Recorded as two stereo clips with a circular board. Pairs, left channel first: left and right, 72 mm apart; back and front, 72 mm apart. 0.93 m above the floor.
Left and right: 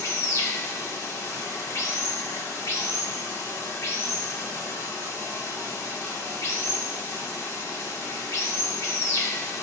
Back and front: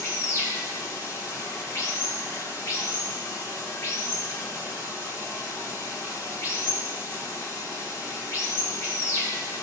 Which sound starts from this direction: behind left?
Running water, at 0.0 s.